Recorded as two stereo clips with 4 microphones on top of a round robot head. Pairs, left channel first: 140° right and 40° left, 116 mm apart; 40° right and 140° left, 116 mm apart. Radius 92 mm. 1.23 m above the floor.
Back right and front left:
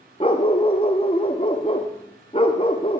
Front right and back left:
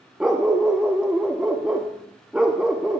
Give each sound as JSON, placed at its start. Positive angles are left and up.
{"t": 0.2, "sound": "a dog barking", "azimuth_deg": -140, "distance_m": 0.7}